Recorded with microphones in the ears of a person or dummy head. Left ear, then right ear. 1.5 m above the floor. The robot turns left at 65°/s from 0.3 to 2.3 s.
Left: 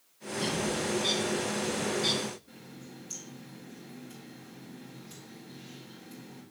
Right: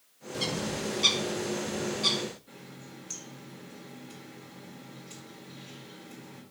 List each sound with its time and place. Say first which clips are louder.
0.3 s a bird: left 1 dB; 35° right (ahead or behind), 1.9 m; by 2.3 s 15° right (ahead or behind), 1.9 m
2.5 s a running tap: right 1 dB; 40° right (ahead or behind), 2.5 m